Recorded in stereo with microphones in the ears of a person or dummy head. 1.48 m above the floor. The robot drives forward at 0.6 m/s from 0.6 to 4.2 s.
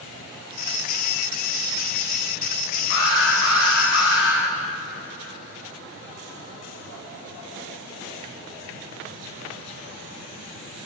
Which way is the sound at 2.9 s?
65° left (ahead or behind).